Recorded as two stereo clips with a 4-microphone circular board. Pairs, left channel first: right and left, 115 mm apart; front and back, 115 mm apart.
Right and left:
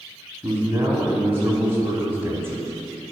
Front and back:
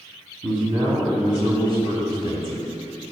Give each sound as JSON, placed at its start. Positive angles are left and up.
{"t": 0.4, "sound": "a man speaking", "azimuth_deg": 155, "distance_m": 1.7}